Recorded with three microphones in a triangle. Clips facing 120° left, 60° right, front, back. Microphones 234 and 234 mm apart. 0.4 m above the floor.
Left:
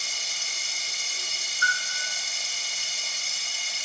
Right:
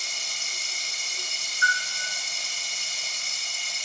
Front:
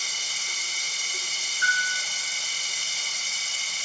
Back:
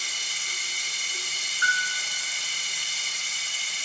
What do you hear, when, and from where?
0.0 s running water: 35° left, 1.0 m
1.6 s a bell: 70° left, 1.8 m